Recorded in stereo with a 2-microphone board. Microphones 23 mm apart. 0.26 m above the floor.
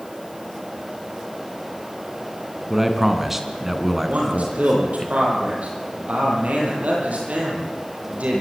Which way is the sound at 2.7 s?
15° right (ahead or behind).